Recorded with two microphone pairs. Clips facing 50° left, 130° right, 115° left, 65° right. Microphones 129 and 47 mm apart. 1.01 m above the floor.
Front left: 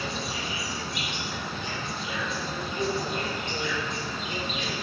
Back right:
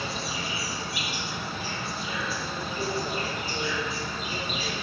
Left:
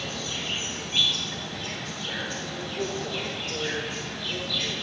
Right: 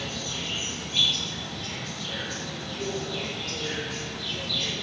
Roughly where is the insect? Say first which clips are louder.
Even, left 1 dB; behind left.